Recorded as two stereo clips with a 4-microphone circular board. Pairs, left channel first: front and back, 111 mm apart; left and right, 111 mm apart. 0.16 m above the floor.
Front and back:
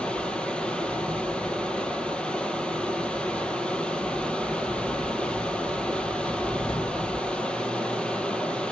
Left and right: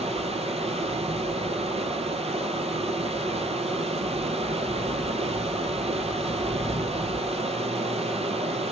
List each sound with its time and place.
0.0 s running water: 80° right, 0.8 m